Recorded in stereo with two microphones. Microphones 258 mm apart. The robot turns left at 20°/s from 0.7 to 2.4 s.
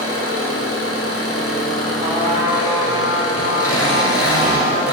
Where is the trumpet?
35° right (ahead or behind), 3.5 m; by 4.8 s 25° right (ahead or behind), 3.5 m.